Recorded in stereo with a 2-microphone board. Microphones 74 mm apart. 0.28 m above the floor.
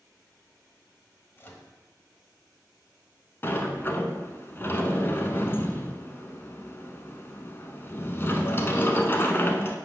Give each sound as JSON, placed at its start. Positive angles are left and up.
{"t": 1.4, "sound": "a microwave", "side_deg": 30, "distance_m": 1.1}
{"t": 3.4, "sound": "a sliding door", "side_deg": 35, "distance_m": 0.8}